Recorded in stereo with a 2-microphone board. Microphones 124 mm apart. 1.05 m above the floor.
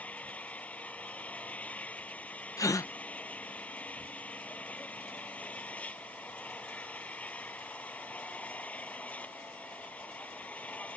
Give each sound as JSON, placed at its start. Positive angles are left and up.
{"t": 0.0, "sound": "an engine running", "side_deg": 10}
{"t": 2.6, "sound": "a gasp", "side_deg": 25}